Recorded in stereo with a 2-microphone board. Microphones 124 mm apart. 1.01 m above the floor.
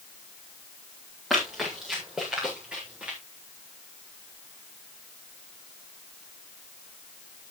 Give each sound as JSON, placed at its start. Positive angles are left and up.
{"t": 1.3, "sound": "running footsteps", "side_deg": 0, "distance_m": 8.0}